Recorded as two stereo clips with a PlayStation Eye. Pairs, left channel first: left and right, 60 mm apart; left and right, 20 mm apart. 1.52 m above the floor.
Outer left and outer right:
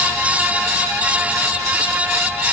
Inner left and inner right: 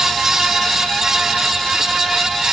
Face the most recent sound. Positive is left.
No sound to turn to.